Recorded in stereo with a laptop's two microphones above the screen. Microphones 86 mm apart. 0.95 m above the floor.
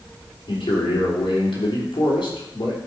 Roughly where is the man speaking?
Left.